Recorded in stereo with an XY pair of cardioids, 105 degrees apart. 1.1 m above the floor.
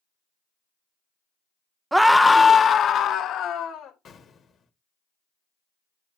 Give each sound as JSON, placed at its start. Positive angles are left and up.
{"t": 1.9, "sound": "a scream", "azimuth_deg": -15, "distance_m": 0.6}
{"t": 4.0, "sound": "an explosion", "azimuth_deg": 55, "distance_m": 1.4}